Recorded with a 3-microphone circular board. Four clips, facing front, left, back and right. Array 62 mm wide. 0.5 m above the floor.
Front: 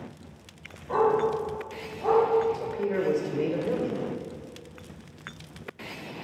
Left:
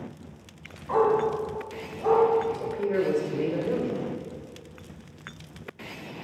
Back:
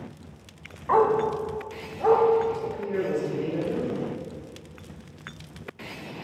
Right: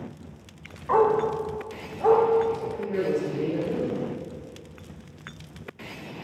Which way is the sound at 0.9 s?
150° right.